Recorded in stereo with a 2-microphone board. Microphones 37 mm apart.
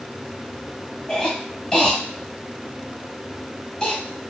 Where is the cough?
20° left (ahead or behind), 1.5 m.